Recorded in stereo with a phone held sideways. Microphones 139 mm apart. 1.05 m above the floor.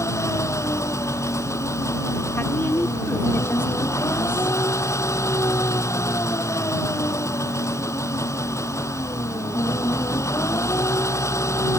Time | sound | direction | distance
0.0 | an engine running | 20° left (ahead or behind) | ?
2.4 | a woman speaking | 15° left (ahead or behind) | ?